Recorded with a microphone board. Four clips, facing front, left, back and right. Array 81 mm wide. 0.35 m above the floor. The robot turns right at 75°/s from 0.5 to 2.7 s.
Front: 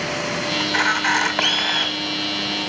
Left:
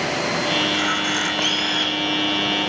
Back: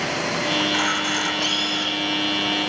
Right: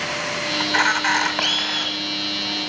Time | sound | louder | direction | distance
0.6 | a camera shutter | right 2 dB, front 2 dB | 80° right | 0.8 m